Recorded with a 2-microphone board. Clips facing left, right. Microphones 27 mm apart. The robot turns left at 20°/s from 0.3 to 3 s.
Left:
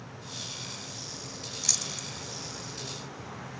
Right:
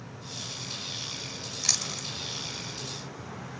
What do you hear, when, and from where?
1.6 s chewing: 30° right (ahead or behind), 0.9 m; by 2.1 s 25° right (ahead or behind), 0.9 m